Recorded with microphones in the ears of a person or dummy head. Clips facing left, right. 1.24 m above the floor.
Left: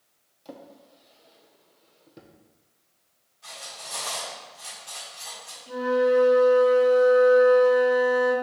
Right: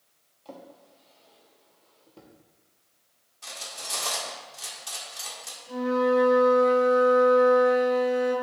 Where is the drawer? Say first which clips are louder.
Left 1 dB; 25° left (ahead or behind), 0.9 m.